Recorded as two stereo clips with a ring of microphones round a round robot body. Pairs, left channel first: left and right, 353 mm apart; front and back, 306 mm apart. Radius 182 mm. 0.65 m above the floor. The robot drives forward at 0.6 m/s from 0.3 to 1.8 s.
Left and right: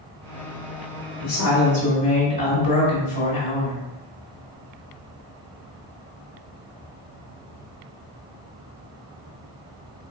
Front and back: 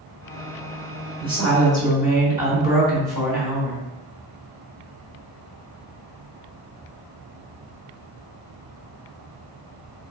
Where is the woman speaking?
105° left, 1.4 m; by 3.8 s 120° left, 1.5 m.